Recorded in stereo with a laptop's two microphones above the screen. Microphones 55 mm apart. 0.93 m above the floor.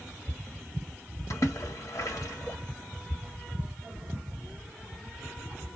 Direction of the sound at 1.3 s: 65° left (ahead or behind).